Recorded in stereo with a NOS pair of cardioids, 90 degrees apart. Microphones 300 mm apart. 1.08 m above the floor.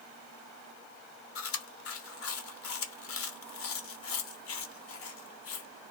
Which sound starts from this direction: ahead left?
Chewing, at 1.4 s.